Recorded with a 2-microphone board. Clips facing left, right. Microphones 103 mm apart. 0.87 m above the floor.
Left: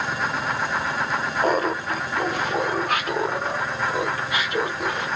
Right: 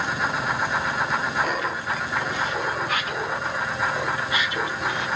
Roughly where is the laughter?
Left.